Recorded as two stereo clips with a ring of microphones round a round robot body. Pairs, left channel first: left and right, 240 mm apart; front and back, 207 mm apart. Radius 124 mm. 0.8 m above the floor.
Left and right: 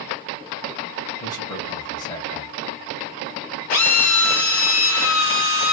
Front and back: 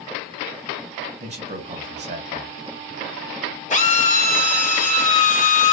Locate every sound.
1.2 s a man speaking: 150° left, 1.0 m
3.7 s a drill: 50° left, 1.8 m